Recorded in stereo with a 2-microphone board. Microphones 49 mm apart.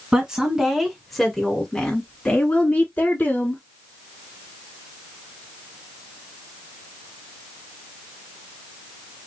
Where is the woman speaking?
15° right (ahead or behind), 1.9 m; by 3.6 s 40° left (ahead or behind), 2 m.